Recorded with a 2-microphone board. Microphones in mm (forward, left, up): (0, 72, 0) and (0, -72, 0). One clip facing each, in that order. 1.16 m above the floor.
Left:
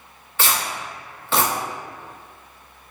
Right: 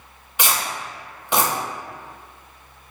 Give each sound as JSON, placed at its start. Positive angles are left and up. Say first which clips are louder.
{"t": 0.4, "sound": "tearing paper", "louder": "even", "side_deg": -15, "distance_m": 0.8}